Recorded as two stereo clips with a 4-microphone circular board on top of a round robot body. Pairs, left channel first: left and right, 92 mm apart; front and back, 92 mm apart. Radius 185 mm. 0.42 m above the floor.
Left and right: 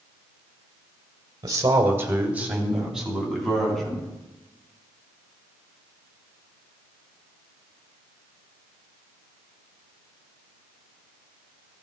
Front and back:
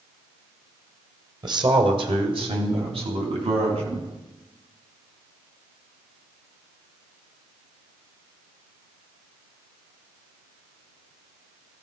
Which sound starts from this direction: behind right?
A man speaking, at 1.4 s.